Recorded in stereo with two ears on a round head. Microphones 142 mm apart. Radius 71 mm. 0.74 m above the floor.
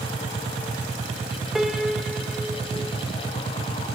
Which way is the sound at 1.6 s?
Centre (ahead or behind).